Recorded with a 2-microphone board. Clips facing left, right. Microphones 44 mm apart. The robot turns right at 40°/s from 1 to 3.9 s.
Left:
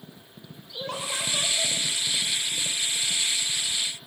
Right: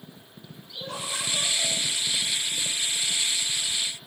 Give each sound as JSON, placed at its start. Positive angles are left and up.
{"t": 0.7, "sound": "laughter", "azimuth_deg": 120, "distance_m": 6.5}